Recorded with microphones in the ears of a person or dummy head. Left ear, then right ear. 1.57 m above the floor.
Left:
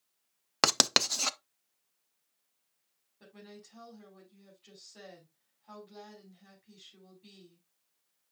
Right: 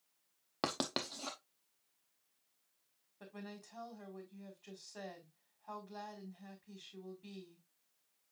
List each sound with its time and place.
0.6 s writing: 65° left (ahead or behind), 0.5 m
3.2 s a woman speaking: 35° right (ahead or behind), 3.5 m